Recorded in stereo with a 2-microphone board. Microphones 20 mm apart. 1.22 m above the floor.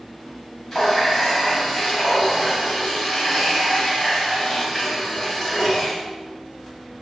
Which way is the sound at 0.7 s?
15° left (ahead or behind).